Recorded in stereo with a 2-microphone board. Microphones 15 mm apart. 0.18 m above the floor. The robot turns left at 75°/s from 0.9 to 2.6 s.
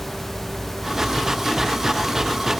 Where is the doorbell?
No doorbell in this recording.